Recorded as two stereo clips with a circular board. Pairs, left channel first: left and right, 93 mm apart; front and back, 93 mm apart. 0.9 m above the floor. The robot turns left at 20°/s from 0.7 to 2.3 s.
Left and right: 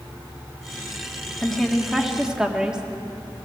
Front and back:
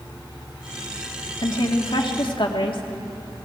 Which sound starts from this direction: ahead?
A woman speaking, at 1.4 s.